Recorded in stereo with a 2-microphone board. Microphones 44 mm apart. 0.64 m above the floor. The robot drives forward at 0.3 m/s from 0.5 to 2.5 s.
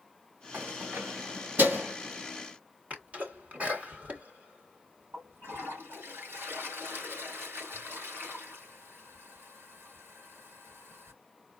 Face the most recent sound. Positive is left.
turn(degrees=-60)  # may be behind; listen again after turning